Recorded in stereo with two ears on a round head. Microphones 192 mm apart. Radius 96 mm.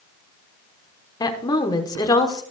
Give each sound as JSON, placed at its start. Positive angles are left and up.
{"t": 1.2, "sound": "a woman speaking", "side_deg": 20, "distance_m": 1.2}